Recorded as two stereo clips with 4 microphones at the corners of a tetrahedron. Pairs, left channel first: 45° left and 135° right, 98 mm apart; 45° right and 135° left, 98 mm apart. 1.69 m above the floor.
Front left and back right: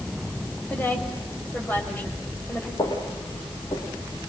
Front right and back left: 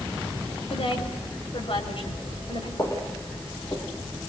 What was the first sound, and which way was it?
A woman speaking, 25° right.